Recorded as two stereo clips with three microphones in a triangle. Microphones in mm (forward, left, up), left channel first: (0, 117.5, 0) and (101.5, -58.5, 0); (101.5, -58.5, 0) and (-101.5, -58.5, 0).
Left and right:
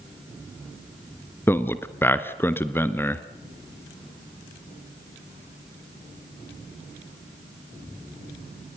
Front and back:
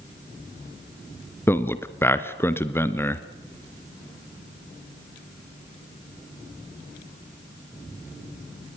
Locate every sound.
1.5 s a man speaking: 60° left, 1.3 m